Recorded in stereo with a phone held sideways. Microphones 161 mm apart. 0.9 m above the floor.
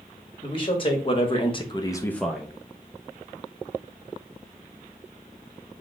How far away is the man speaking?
About 1.6 m.